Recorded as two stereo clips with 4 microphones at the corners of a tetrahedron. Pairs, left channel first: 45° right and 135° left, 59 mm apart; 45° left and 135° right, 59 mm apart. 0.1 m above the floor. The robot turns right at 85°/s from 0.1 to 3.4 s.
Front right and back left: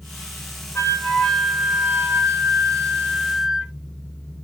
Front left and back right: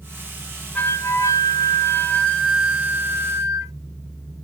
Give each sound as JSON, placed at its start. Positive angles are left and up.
{"t": 0.8, "sound": "a flute", "azimuth_deg": -20, "distance_m": 0.6}